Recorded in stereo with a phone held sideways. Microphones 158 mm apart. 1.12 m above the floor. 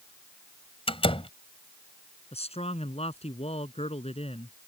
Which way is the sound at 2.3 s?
40° left (ahead or behind).